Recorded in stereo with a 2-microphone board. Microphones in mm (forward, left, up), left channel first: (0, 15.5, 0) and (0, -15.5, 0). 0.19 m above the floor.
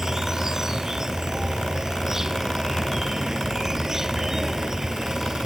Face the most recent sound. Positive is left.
turn(degrees=-15)  # may be behind; listen again after turning